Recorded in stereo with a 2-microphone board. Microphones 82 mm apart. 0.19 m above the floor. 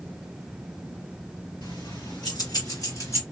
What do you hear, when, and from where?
1.6 s keys jangling: 70° left (ahead or behind), 2.5 m; by 3.2 s 35° left (ahead or behind), 1.9 m